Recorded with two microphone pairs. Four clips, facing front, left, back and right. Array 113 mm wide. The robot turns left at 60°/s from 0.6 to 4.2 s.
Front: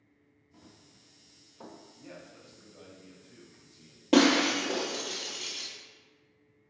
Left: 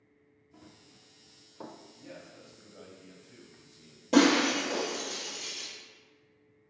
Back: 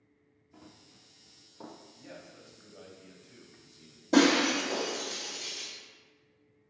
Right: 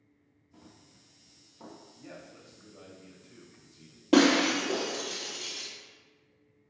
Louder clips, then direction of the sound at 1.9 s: Even, even; 160° right.